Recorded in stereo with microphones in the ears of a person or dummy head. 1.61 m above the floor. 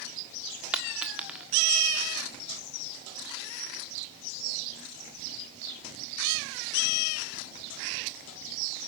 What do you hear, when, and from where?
0.7 s a dropped coin: 5° right (ahead or behind), 1.4 m